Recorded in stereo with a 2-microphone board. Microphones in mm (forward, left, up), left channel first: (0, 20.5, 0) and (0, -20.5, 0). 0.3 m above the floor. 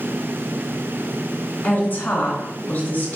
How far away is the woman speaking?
About 1.6 m.